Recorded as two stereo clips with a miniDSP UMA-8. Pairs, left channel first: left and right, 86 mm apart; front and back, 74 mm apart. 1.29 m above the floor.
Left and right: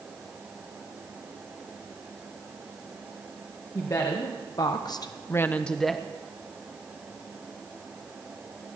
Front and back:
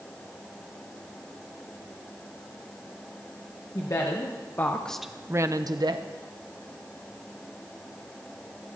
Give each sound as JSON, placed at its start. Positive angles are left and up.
{"t": 3.8, "sound": "a woman speaking", "azimuth_deg": 40, "distance_m": 1.6}